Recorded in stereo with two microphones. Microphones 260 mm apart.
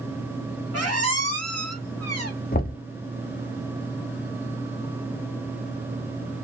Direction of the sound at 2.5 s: 35° left (ahead or behind).